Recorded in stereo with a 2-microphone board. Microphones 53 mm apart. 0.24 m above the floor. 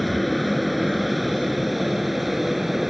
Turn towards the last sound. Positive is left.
turn(degrees=-5)  # may be behind; listen again after turning